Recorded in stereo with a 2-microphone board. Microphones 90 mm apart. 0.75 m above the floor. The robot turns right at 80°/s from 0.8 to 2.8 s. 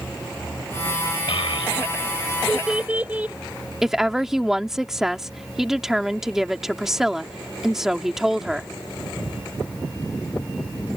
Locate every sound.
1.3 s a child speaking: 75° left (ahead or behind); by 3.4 s 15° right (ahead or behind)
3.8 s a woman speaking: 5° right (ahead or behind)